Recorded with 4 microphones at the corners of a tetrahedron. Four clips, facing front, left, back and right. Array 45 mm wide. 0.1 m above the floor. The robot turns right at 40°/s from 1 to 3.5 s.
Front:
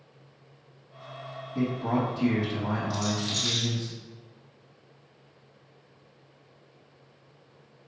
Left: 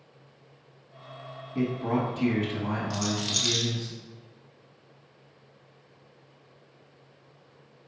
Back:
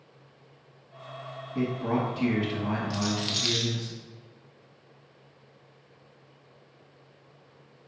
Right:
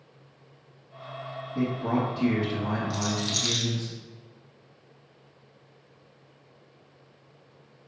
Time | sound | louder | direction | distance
1.6 | a man speaking | even, front 1 dB | 120° left | 1.7 m
2.9 | a rattle | even, even | 150° left | 0.9 m